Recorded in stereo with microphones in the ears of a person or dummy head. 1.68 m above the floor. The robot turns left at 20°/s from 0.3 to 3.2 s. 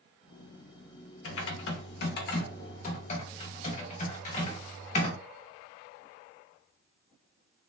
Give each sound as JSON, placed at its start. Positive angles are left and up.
{"t": 1.2, "sound": "typing on a keyboard", "azimuth_deg": 80, "distance_m": 0.7}